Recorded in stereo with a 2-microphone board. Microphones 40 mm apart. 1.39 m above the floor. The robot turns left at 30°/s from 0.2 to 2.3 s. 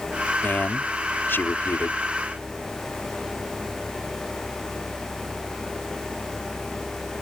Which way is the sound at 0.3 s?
125° left.